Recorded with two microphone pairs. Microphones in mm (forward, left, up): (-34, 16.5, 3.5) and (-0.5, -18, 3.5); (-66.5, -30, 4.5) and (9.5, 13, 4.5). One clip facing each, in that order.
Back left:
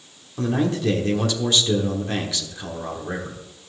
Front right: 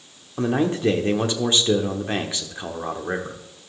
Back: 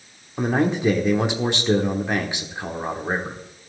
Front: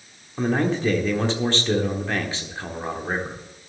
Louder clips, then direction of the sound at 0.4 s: Front right 1 dB, back 1 dB; 90° right.